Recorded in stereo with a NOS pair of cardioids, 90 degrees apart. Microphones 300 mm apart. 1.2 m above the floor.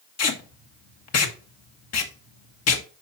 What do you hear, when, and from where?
0.2 s tape being pulled: 55° left, 1.5 m